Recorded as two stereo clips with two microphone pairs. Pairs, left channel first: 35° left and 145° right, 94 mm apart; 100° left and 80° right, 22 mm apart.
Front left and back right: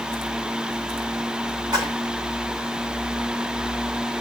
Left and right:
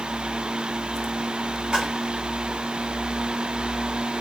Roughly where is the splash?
Behind right.